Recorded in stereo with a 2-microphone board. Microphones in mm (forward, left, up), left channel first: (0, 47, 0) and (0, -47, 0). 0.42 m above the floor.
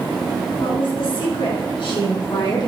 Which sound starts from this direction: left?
A woman speaking, at 0.6 s.